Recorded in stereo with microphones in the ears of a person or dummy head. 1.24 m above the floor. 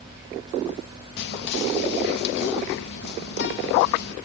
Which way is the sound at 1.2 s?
60° left (ahead or behind).